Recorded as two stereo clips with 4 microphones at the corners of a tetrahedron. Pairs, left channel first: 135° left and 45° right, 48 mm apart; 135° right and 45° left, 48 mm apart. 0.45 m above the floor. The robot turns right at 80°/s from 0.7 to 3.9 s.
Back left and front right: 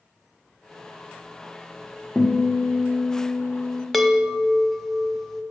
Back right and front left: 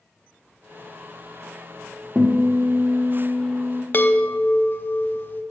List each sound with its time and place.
2.1 s a guitar: 50° left, 0.9 m; by 3.8 s 175° right, 0.9 m
3.9 s a chime: 140° right, 0.6 m